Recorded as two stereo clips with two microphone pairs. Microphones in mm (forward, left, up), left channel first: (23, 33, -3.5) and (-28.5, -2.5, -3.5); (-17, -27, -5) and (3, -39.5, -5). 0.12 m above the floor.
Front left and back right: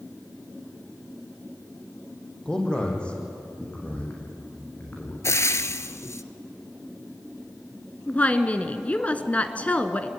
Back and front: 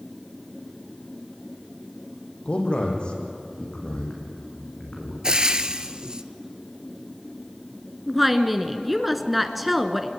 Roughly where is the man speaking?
Behind left.